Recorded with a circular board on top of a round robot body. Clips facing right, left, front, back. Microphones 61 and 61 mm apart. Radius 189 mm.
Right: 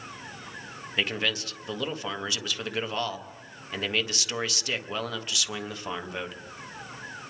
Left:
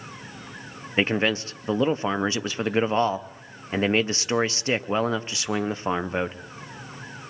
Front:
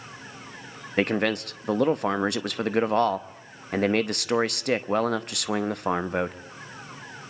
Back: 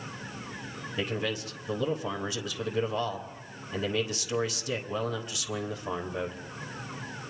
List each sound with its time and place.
1.0 s a man speaking: 30° left, 1.0 m